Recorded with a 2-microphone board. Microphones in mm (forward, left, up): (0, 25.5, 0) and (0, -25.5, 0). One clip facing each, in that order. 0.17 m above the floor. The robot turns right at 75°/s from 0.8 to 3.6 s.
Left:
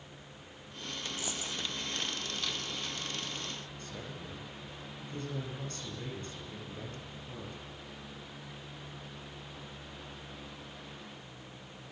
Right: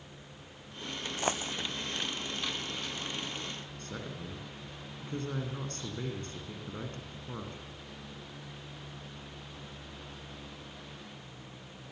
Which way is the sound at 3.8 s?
55° right (ahead or behind).